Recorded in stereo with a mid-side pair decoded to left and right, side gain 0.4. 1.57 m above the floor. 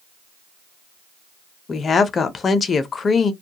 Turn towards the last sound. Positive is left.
turn(degrees=45)